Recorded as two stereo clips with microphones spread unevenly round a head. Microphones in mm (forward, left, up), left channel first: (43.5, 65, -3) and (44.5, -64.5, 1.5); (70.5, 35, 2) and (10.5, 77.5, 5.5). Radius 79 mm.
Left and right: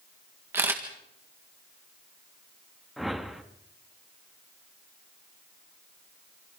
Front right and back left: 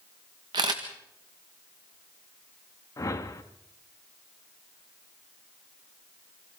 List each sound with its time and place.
0.5 s a camera shutter: 165° right, 1.7 m
3.0 s a whoosh: straight ahead, 1.8 m